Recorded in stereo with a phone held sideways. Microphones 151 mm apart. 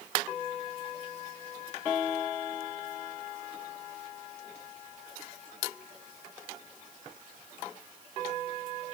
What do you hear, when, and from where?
Only background noise.